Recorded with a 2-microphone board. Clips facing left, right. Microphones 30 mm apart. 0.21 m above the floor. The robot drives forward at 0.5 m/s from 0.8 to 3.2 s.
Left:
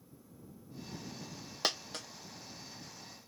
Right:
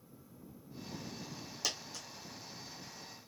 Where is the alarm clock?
I don't hear an alarm clock.